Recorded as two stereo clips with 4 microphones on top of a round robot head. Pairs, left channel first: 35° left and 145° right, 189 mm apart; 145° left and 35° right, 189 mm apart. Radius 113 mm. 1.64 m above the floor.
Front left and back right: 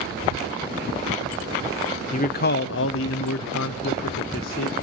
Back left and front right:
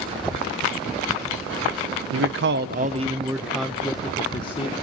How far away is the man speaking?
About 1.2 m.